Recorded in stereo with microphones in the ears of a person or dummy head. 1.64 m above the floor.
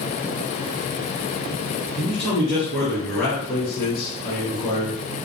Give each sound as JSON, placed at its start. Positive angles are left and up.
{"t": 2.0, "sound": "a man speaking", "side_deg": 15, "distance_m": 2.5}